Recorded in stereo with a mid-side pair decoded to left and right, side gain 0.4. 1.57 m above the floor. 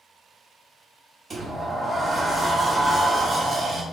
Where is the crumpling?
No crumpling in this recording.